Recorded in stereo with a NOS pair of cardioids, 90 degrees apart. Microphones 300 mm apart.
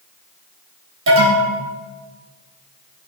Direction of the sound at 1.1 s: 45° right.